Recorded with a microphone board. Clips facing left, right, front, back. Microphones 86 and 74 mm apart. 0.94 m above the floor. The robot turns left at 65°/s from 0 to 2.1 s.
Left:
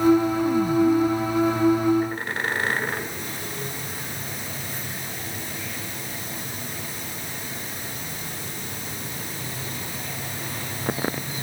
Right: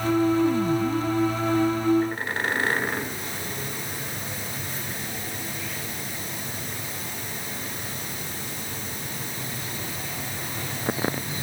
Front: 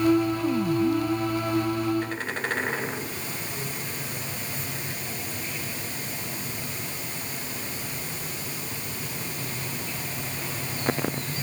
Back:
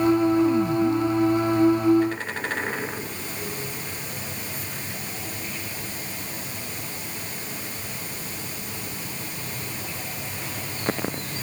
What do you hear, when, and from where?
Only background noise.